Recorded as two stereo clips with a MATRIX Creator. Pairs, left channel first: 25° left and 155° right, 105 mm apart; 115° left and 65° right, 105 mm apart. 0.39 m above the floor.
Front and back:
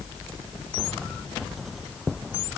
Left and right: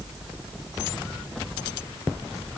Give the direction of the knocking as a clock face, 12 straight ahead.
No knocking in this recording.